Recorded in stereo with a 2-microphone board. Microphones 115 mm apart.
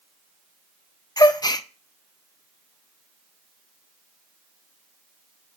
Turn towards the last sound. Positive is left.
turn(degrees=35)  # may be behind; listen again after turning